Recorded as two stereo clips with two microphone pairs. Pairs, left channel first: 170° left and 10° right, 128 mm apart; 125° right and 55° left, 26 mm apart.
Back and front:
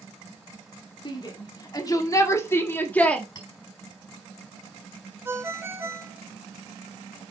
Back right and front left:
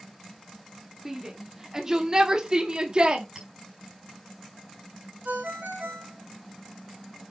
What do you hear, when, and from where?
1.1 s a shout: 125° left, 2 m; by 3.2 s 90° left, 1.4 m
3.4 s a clink: 115° left, 4 m
5.2 s a ringtone: 65° left, 2.0 m